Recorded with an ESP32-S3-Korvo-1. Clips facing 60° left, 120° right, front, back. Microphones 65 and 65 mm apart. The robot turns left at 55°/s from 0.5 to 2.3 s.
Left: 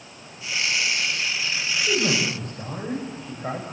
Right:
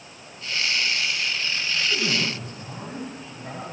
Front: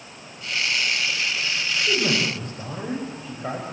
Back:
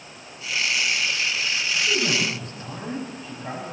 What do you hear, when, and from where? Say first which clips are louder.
1.8 s a man speaking: left 4 dB, front 2 dB; 65° left, 7 m; by 3.6 s 35° left, 7 m